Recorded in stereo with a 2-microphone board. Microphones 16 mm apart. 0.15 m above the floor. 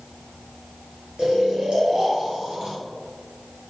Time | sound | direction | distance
1.2 | snoring | 65° right (ahead or behind) | 2.5 m